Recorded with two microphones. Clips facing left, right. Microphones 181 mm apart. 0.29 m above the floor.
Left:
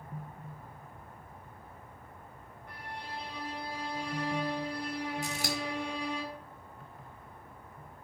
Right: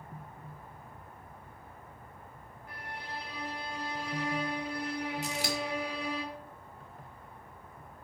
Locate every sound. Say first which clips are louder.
2.7 s a violin: even; 5° right (ahead or behind), 3 m
5.2 s scissors: right 1 dB; 50° left (ahead or behind), 1.7 m